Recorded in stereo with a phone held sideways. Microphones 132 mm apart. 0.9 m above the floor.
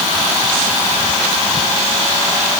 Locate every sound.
Only background noise.